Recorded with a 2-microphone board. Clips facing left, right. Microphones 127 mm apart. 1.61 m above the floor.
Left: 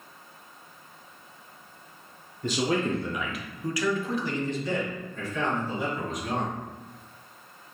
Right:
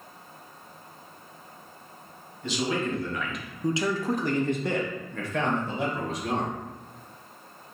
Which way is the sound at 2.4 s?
45° left (ahead or behind).